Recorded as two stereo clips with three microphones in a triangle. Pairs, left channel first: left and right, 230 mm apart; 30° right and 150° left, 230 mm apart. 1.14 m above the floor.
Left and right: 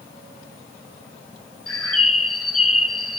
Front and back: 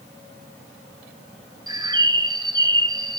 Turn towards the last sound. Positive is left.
turn(degrees=80)